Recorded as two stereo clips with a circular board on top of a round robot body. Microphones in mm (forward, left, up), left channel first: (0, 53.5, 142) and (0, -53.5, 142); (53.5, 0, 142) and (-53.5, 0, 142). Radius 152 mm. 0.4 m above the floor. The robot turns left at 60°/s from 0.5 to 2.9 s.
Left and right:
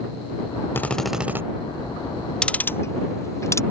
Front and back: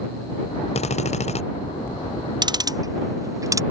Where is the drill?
20° left; by 1.4 s 20° right.